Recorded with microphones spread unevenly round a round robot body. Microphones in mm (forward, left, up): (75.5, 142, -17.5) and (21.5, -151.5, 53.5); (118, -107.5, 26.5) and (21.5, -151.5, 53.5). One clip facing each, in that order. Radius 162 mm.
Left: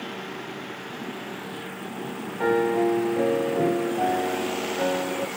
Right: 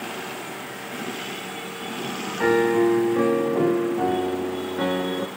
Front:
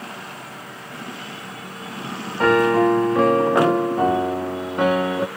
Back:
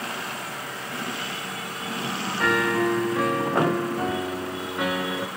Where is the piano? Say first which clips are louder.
Right 3 dB, front 7 dB; 35° right, 0.5 m.